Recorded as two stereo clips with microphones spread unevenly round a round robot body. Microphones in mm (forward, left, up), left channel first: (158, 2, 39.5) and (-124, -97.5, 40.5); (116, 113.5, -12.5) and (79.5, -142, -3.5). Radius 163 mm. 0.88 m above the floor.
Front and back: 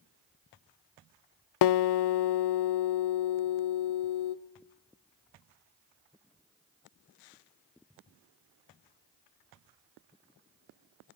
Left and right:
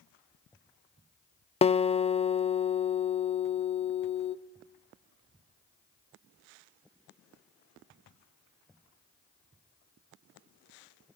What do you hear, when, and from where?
1.6 s a guitar: 15° left, 0.6 m